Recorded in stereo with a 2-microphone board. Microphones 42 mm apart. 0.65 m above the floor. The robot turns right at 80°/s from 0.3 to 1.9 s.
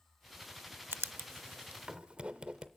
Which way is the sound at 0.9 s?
70° right (ahead or behind).